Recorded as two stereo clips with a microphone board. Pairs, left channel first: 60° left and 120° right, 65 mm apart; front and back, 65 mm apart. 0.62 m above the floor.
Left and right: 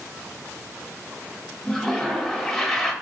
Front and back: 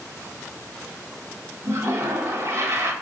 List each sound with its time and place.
1.6 s a toilet flushing: 145° left, 0.6 m